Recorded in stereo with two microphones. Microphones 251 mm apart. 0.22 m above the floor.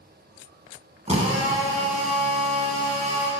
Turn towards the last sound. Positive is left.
turn(degrees=-25)  # may be behind; listen again after turning